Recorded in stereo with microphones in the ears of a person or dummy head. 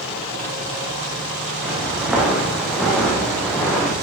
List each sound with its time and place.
1.6 s footsteps: 5° right (ahead or behind), 3 m; by 3.9 s 10° left (ahead or behind), 2 m